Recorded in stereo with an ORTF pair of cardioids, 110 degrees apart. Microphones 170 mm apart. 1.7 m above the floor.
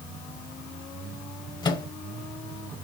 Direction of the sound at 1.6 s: 30° left.